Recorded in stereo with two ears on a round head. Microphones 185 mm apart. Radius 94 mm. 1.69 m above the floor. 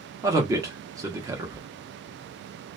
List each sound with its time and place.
0.2 s a man speaking: 15° right (ahead or behind), 0.7 m